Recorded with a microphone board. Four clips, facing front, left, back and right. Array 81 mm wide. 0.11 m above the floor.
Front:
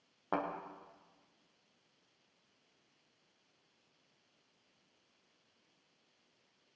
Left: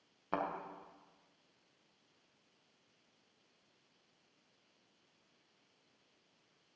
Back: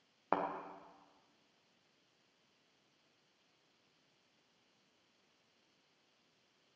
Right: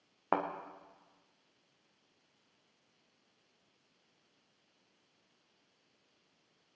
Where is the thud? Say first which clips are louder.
Right 5 dB, back 1 dB; 110° right, 2.5 m.